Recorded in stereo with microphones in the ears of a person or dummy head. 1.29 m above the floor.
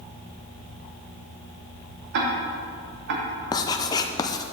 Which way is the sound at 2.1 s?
60° right (ahead or behind).